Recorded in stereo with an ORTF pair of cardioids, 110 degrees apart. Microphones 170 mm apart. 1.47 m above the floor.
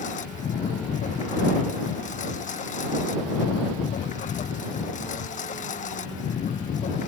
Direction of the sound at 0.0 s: 45° left.